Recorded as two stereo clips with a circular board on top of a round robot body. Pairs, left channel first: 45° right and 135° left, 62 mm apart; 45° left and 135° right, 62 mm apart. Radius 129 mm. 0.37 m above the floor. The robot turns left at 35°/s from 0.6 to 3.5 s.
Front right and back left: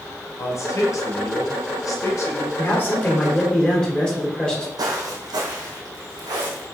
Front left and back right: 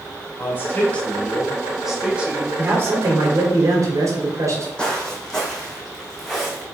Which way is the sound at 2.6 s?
80° right.